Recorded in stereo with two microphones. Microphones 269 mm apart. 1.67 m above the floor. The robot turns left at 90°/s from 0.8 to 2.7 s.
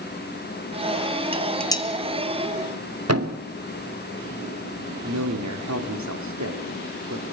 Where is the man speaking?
80° right, 3.5 m.